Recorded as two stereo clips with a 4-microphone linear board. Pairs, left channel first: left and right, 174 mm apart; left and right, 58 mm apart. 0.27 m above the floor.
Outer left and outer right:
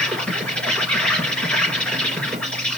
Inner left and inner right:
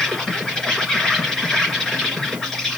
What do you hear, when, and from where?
0.0 s an insect: 5° left (ahead or behind), 3 m